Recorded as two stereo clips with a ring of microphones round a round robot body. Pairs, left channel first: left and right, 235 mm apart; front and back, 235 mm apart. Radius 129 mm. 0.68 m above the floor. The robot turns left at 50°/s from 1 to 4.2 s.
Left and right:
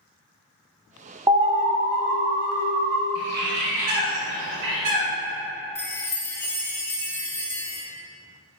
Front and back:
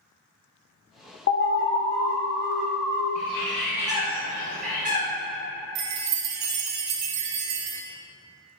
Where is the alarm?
25° right, 1.1 m; by 3.0 s 115° right, 1.1 m.